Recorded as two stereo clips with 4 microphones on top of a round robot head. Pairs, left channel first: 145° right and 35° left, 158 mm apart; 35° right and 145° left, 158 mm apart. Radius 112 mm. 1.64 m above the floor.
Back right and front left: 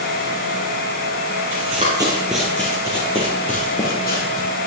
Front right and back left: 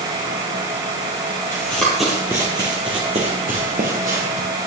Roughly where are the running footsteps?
Ahead left.